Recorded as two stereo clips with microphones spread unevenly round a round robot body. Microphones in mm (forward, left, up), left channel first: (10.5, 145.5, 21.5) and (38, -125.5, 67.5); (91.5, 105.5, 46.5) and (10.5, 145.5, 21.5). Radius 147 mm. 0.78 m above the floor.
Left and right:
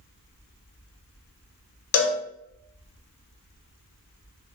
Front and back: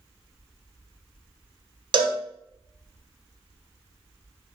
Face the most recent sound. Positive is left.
turn(degrees=125)